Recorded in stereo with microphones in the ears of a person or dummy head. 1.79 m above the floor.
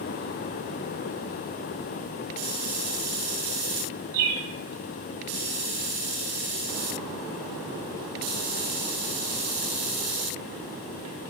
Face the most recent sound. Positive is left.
turn(degrees=-15)  # may be behind; listen again after turning